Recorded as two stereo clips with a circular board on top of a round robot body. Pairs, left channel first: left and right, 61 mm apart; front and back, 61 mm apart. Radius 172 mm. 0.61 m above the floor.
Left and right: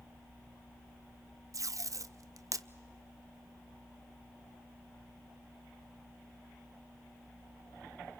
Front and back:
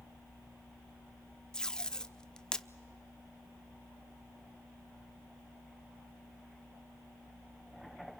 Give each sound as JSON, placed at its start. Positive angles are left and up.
{"t": 1.5, "sound": "tape being pulled", "azimuth_deg": -75, "distance_m": 0.6}